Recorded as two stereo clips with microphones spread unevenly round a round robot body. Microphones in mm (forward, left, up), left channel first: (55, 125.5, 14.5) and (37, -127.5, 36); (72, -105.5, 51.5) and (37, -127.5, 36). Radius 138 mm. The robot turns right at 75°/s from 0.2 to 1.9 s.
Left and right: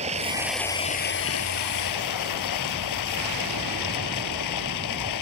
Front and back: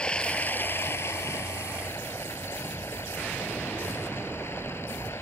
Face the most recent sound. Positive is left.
turn(degrees=100)